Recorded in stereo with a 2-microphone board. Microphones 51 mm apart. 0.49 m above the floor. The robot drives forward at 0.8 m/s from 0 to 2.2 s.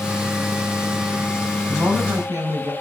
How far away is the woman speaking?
About 6 m.